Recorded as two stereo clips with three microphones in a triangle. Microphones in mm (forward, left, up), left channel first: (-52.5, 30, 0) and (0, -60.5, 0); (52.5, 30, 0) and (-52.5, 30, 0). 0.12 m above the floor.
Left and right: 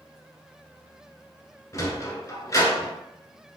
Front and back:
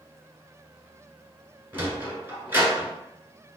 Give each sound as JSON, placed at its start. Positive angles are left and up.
{"t": 1.7, "sound": "a sliding door", "azimuth_deg": 140, "distance_m": 1.3}